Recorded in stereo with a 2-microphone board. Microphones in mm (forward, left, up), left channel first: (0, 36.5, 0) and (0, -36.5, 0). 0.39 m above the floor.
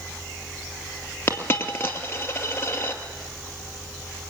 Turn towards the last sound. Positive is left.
turn(degrees=30)  # may be behind; listen again after turning